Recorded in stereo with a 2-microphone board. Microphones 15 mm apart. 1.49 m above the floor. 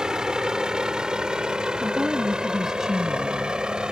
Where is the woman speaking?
30° right (ahead or behind).